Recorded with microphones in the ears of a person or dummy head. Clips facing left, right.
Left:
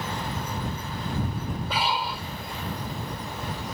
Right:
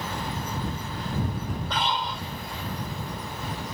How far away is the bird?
I don't hear a bird.